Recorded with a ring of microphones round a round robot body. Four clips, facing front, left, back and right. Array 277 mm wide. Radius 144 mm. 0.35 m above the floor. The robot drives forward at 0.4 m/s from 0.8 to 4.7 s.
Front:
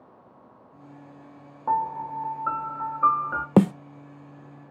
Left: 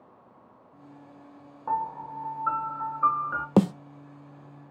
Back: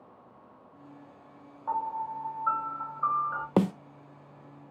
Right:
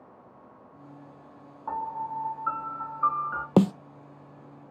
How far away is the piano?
About 1.9 m.